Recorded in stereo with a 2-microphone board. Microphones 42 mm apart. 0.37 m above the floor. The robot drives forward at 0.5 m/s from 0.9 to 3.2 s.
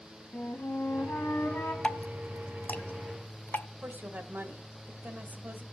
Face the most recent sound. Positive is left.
turn(degrees=-50)  # may be behind; listen again after turning